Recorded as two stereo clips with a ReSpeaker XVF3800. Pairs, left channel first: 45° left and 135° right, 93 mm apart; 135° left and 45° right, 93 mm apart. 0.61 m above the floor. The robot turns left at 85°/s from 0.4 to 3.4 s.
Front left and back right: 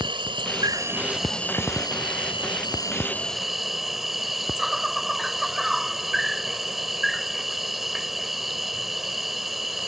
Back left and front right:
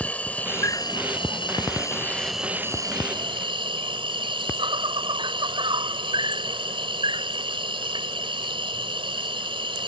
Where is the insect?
150° right; by 9.9 s 45° right.